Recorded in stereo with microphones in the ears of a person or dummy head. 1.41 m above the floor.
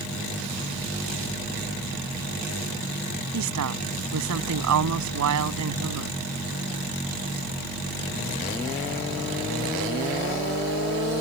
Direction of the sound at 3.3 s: 75° right (ahead or behind).